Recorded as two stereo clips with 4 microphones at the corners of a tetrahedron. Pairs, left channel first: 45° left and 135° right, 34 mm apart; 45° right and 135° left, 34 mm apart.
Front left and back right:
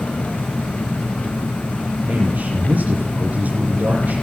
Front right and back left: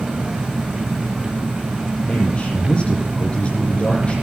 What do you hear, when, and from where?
0.0 s an engine running: 75° left, 0.9 m
2.1 s a man speaking: 100° right, 8 m